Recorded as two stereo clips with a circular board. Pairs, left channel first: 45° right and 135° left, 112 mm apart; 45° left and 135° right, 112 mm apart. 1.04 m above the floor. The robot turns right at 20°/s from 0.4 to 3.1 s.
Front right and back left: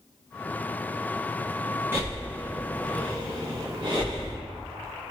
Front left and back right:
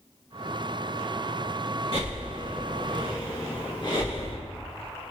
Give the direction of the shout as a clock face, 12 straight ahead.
I don't hear a shout.